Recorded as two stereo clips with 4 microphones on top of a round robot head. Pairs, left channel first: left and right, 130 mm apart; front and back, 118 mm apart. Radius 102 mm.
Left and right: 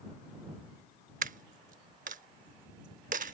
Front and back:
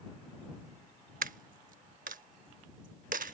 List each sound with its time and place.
1.2 s a dropped coin: 140° right